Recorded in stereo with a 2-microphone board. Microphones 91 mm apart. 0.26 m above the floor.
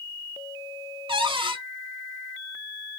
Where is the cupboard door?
75° right (ahead or behind), 0.6 m.